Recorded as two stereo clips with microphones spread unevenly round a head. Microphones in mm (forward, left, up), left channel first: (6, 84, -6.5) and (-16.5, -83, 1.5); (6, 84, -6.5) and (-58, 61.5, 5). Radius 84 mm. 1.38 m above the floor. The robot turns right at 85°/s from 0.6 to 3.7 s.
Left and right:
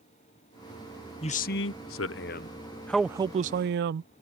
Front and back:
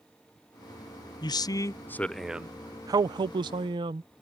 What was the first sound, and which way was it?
A man speaking, 25° left.